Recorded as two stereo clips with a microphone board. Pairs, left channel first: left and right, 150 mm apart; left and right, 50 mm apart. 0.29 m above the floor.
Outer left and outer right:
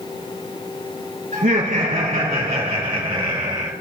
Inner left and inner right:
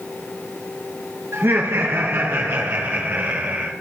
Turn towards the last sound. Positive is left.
turn(degrees=-25)  # may be behind; listen again after turning